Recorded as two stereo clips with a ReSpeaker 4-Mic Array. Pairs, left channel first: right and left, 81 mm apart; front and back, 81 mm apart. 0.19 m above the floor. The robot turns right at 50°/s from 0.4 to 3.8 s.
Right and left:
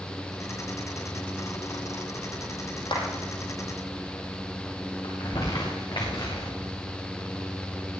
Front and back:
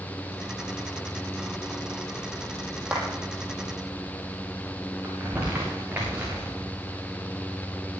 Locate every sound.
2.9 s a clap: 105° right, 5.5 m; by 3.0 s 100° right, 5.5 m
5.0 s crumpling: 115° right, 5 m